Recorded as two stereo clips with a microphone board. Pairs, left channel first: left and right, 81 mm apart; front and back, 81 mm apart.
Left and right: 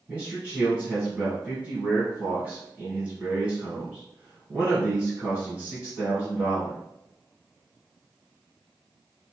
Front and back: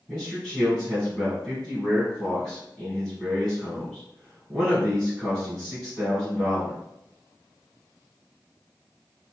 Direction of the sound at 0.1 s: 70° right.